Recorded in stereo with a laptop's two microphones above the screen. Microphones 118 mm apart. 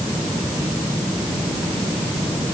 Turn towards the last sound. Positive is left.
No sound to turn to.